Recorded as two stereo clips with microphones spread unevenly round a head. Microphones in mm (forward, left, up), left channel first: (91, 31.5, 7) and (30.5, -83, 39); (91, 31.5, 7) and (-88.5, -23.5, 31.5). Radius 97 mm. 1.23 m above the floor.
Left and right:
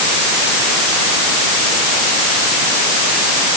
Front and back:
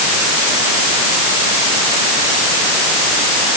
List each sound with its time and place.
Only background noise.